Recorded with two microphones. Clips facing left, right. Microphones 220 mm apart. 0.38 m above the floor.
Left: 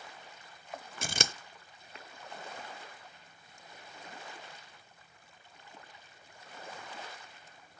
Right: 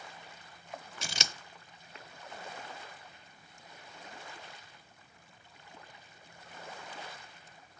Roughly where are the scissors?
Left.